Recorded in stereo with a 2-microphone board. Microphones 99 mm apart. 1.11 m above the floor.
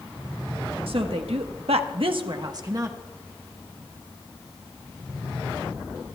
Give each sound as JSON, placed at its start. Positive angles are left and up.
{"t": 0.9, "sound": "a woman speaking", "side_deg": -65, "distance_m": 1.4}